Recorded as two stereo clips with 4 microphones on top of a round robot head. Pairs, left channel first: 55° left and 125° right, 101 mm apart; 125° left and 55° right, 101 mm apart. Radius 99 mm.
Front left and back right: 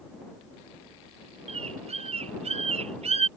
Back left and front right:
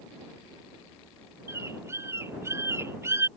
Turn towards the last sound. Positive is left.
turn(degrees=-120)